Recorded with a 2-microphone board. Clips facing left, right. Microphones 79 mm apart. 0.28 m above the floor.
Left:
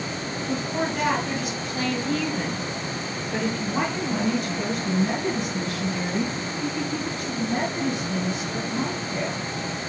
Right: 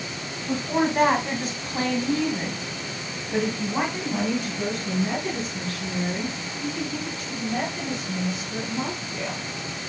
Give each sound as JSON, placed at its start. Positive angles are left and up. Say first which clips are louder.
{"t": 0.5, "sound": "a woman speaking", "louder": "right 4 dB", "side_deg": -55, "distance_m": 2.0}